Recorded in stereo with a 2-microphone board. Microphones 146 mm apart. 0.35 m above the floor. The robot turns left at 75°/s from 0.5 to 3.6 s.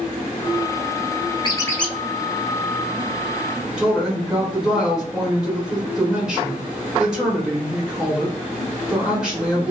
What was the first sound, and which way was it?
A squeak, 35° left.